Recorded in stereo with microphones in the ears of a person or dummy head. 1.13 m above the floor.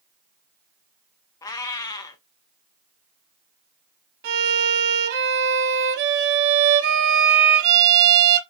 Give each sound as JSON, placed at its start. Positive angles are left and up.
{"t": 1.4, "sound": "a cat meowing", "side_deg": 25, "distance_m": 0.8}
{"t": 4.2, "sound": "a violin", "side_deg": -60, "distance_m": 1.1}